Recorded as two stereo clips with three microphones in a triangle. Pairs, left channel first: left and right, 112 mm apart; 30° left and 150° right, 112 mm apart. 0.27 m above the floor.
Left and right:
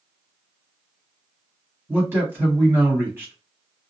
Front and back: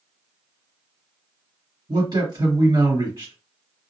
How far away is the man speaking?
About 2.0 m.